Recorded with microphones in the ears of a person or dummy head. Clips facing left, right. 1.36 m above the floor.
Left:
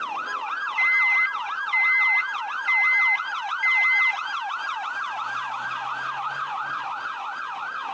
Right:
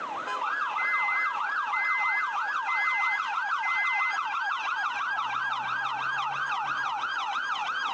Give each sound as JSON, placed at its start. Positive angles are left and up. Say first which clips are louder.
{"t": 0.8, "sound": "a microwave", "louder": "left 2 dB", "side_deg": 40, "distance_m": 0.7}